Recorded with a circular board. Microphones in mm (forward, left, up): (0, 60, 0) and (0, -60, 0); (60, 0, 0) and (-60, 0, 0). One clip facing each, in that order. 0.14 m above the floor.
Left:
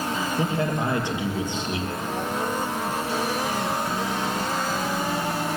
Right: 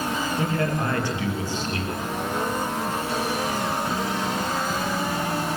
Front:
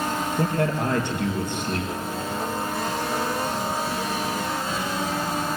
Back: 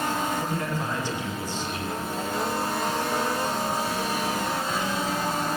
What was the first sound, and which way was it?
A man speaking, 20° left.